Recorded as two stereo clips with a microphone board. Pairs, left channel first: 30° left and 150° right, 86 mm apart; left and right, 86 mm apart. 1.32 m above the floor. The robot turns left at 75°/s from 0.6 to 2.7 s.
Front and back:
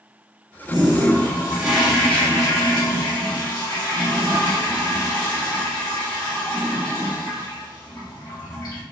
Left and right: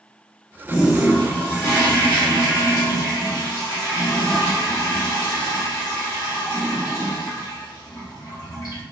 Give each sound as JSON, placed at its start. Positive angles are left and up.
{"t": 0.7, "sound": "a toilet flushing", "azimuth_deg": -150, "distance_m": 1.2}